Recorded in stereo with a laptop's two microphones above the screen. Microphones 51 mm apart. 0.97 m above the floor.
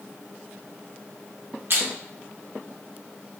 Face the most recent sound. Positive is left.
turn(degrees=-50)  # may be behind; listen again after turning